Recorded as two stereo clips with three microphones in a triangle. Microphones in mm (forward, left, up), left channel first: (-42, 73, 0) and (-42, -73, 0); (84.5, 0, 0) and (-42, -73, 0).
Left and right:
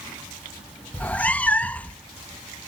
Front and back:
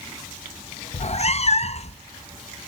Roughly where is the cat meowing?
Ahead.